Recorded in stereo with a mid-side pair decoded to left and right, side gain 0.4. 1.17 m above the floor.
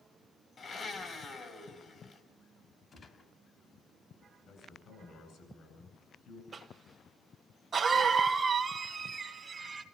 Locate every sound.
0.6 s a blender: 50° left, 3.5 m
2.9 s a gunshot: 45° left, 3 m
4.5 s a man speaking: 65° left, 8 m
6.5 s a cough: 55° right, 1.1 m